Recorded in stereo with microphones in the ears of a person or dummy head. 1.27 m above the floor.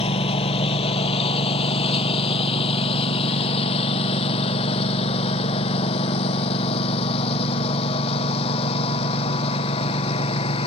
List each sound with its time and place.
0.0 s a lawn mower: 30° left (ahead or behind)